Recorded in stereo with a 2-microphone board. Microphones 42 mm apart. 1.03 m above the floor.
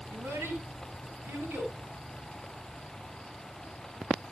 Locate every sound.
0.1 s a child speaking: 85° right, 6.5 m; by 1.7 s 80° right, 8.5 m